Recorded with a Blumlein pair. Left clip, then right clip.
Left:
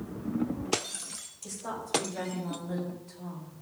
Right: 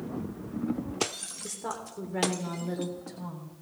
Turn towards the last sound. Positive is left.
turn(degrees=-60)